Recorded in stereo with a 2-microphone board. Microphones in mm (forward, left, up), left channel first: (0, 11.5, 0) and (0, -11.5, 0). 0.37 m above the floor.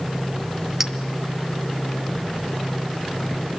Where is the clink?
15° right (ahead or behind), 1.5 m.